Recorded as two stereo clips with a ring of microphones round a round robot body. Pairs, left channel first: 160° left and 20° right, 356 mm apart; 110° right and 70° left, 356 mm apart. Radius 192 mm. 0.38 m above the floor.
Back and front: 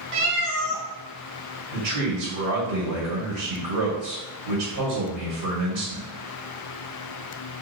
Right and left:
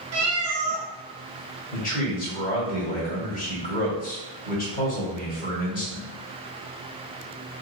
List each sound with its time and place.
0.1 s a cat meowing: 15° left, 0.8 m
1.7 s a man speaking: 45° right, 1.5 m